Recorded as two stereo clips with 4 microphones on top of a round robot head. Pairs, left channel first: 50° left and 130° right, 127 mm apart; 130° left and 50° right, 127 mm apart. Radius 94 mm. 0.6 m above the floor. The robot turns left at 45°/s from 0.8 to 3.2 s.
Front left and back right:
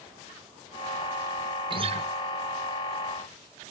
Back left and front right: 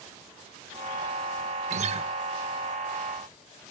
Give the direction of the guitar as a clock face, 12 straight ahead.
3 o'clock.